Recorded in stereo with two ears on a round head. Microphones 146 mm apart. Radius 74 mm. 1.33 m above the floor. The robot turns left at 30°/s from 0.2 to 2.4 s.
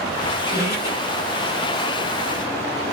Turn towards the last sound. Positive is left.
turn(degrees=85)